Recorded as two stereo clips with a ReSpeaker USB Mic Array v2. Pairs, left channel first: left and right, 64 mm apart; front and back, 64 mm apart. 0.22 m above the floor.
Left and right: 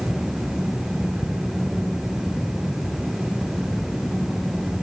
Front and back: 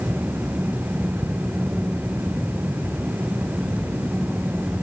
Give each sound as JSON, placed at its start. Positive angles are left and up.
{"t": 1.2, "sound": "ticking", "azimuth_deg": 100, "distance_m": 1.7}